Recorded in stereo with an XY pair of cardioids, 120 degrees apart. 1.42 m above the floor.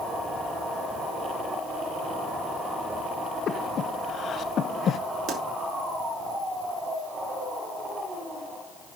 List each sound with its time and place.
3.5 s breathing: 50° left, 0.9 m
5.3 s a pop: 65° right, 4 m